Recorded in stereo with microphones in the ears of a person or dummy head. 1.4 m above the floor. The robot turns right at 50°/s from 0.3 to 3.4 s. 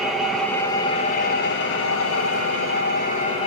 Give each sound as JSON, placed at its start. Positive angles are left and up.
{"t": 0.0, "sound": "an engine running", "azimuth_deg": -5, "distance_m": 1.1}